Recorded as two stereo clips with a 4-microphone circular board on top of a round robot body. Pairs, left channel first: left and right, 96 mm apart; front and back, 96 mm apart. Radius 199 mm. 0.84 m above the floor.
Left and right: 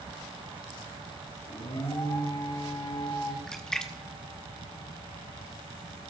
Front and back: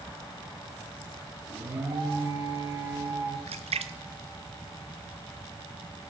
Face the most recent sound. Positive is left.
turn(degrees=175)